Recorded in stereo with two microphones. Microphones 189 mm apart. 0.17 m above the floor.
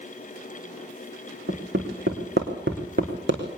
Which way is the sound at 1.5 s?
75° right (ahead or behind).